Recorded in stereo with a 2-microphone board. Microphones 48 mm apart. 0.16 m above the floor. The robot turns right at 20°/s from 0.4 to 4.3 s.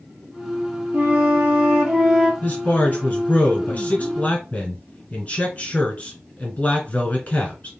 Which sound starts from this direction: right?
A flute, at 0.9 s.